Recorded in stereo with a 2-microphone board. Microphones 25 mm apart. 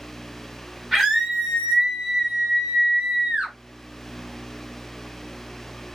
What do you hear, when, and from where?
0.9 s a scream: 5° left (ahead or behind), 1.4 m; by 3.5 s 40° right (ahead or behind), 1.3 m